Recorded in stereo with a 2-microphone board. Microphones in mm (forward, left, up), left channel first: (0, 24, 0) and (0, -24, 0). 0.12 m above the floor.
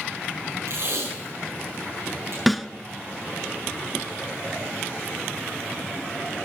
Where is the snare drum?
Centre (ahead or behind), 0.8 m.